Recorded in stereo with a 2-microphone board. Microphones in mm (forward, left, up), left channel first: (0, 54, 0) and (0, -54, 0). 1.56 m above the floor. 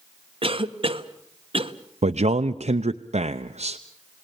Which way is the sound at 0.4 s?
50° right (ahead or behind).